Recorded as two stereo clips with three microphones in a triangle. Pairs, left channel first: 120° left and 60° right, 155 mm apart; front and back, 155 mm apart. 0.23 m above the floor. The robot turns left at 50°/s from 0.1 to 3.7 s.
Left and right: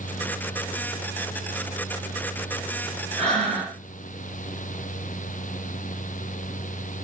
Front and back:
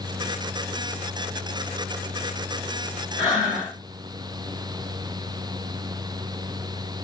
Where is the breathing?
50° left, 2.5 m; by 3.8 s 20° left, 2.5 m.